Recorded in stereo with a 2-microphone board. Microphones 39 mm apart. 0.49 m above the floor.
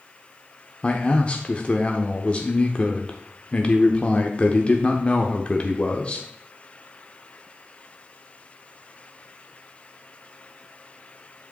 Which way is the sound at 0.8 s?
25° left (ahead or behind).